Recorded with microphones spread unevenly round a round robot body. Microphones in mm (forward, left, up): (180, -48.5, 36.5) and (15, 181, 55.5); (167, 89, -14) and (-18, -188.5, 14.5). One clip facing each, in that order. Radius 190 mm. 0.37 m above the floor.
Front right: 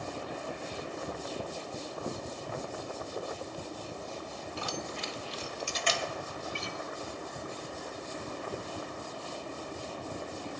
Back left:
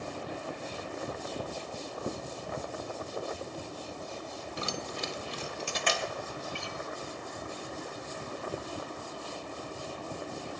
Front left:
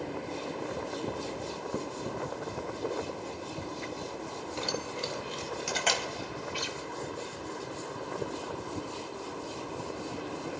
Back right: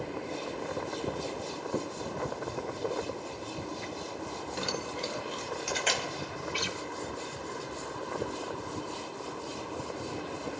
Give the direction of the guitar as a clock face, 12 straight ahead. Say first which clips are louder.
Front right 1 dB, back right 1 dB; 4 o'clock.